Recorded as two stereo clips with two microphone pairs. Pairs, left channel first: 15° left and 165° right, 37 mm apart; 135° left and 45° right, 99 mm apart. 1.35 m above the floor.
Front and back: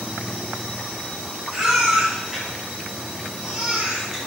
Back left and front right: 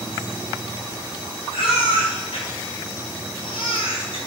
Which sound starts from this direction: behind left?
A baby crying, at 1.5 s.